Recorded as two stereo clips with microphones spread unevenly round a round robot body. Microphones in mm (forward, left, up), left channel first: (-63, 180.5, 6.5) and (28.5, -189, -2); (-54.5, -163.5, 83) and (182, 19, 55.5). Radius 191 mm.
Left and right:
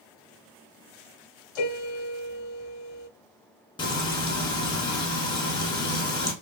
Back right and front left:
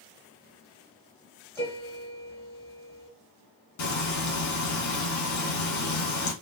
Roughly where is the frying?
Behind.